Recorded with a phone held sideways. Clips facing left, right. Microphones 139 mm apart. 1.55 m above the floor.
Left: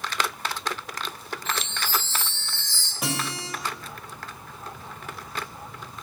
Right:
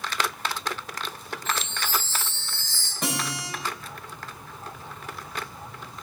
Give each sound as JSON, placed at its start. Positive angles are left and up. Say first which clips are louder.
{"t": 1.4, "sound": "a chime", "louder": "even", "side_deg": -5, "distance_m": 3.5}
{"t": 3.0, "sound": "a guitar", "louder": "even", "side_deg": 5, "distance_m": 4.0}